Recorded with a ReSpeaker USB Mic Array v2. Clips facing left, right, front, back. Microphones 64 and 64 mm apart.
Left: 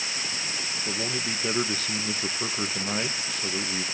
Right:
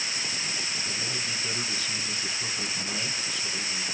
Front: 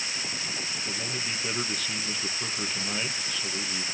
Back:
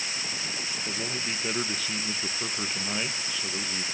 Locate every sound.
0.8 s a man speaking: 100° left, 1.0 m